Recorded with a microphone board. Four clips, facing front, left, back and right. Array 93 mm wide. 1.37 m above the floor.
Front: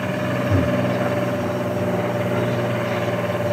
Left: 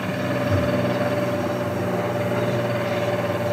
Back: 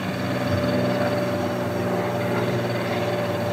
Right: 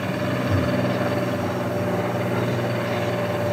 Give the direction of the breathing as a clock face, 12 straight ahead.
12 o'clock.